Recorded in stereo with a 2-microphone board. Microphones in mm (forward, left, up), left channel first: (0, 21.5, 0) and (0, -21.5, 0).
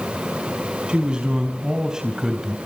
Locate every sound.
0.9 s a man speaking: 20° right (ahead or behind), 4.5 m; by 2.6 s 10° right (ahead or behind), 2.5 m